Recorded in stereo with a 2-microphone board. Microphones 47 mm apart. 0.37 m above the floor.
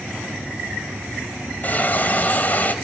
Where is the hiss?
40° left (ahead or behind), 2.0 m.